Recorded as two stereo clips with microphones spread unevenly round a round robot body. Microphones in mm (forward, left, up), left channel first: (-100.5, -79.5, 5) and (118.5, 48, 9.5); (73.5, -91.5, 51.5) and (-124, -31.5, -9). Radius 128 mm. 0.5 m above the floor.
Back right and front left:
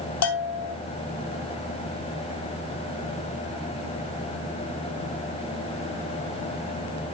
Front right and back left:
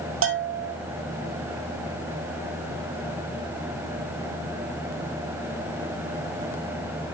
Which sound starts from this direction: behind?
A bell, at 0.2 s.